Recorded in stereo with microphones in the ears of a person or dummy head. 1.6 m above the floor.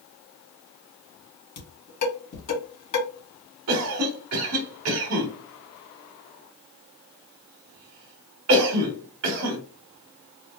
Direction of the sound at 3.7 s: 80° right.